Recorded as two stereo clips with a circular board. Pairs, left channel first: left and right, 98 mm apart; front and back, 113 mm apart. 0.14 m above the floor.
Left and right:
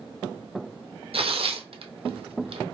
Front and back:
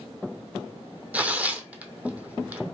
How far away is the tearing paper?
About 0.8 m.